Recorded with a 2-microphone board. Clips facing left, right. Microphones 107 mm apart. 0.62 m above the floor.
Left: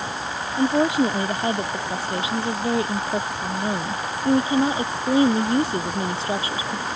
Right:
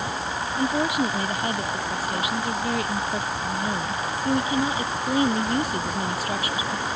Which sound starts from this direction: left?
A woman speaking, at 0.6 s.